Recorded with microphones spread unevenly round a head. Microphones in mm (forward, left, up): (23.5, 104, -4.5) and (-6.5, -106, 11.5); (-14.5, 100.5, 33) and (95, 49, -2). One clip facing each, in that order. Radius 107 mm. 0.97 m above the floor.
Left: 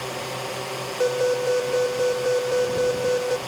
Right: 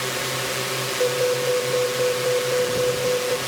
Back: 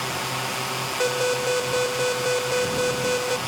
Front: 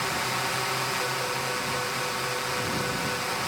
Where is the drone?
110° right.